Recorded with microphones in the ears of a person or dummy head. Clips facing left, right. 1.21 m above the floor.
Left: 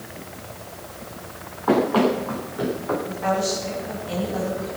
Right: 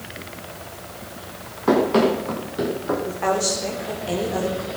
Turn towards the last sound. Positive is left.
turn(degrees=-75)  # may be behind; listen again after turning